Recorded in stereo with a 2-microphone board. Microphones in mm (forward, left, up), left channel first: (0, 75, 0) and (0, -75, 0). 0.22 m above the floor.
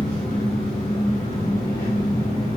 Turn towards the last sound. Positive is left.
turn(degrees=75)  # may be behind; listen again after turning